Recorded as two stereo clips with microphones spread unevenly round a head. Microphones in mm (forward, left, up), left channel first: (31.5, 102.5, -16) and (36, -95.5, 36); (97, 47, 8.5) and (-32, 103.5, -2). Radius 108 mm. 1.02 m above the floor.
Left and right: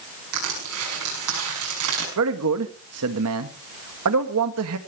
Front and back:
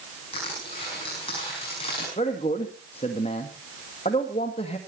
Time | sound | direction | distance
0.3 | crushing | 90° right | 6 m
2.2 | a man speaking | 85° right | 1.8 m